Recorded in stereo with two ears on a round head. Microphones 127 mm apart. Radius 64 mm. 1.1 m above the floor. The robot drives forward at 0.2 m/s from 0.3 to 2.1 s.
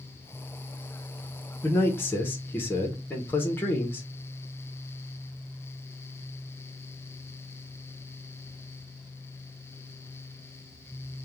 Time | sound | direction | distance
1.6 | a man speaking | 20° left (ahead or behind) | 0.6 m